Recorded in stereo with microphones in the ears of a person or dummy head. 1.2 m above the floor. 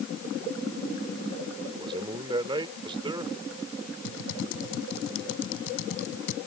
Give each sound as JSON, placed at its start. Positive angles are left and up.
{"t": 1.7, "sound": "a man speaking", "side_deg": -25}
{"t": 4.0, "sound": "typing on a keyboard", "side_deg": 75}